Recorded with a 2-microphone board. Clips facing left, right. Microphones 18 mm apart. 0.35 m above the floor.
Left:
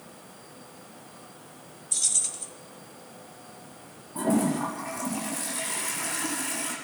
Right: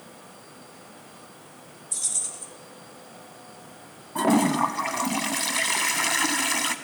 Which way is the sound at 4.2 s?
60° right (ahead or behind).